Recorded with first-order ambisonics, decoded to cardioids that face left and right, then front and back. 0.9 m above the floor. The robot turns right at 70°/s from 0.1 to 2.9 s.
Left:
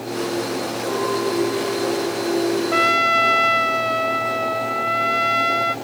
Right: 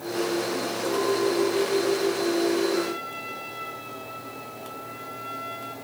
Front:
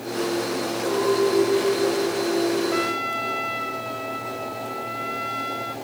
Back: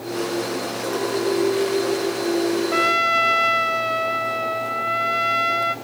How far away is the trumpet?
About 0.6 m.